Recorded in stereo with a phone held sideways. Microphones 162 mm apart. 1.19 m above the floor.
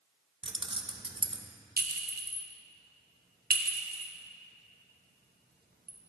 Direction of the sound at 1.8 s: 70° right (ahead or behind).